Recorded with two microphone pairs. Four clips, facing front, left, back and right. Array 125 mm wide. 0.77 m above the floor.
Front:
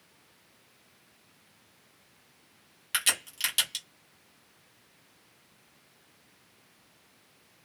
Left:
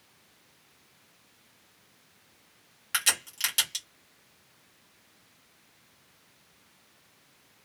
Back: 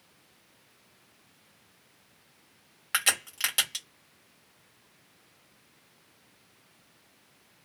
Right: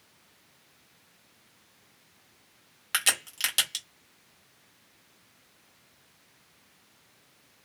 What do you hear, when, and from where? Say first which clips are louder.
2.9 s a crack: right 1 dB, back 3 dB; 155° right, 1.5 m